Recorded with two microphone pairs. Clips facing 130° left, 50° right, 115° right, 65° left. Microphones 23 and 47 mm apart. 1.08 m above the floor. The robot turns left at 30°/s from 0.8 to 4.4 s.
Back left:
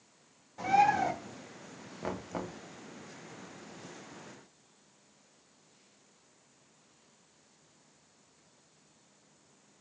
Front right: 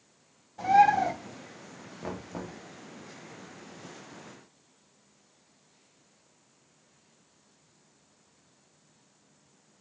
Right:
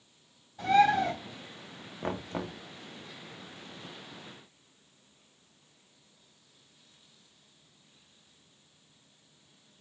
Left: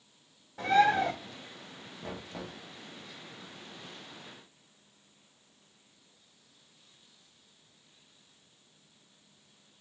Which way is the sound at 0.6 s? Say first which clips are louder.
Front right 5 dB, right 1 dB; 45° left.